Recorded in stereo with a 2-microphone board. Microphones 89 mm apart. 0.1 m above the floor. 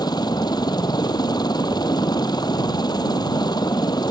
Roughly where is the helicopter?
Left.